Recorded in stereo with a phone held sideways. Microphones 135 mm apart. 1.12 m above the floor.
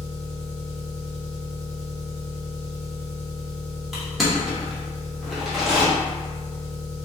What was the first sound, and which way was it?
An engine running, 45° right (ahead or behind).